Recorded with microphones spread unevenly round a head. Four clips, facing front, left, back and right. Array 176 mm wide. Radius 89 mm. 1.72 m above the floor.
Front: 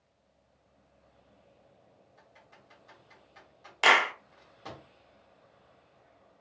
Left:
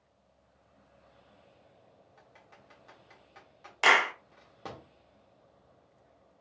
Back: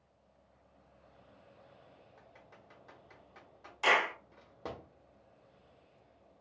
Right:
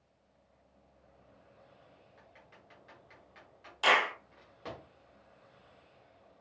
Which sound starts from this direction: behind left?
Typing on a keyboard, at 2.2 s.